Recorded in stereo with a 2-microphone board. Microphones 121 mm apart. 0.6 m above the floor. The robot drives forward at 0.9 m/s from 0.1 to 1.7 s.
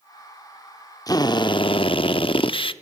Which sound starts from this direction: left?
A drill, at 1.1 s.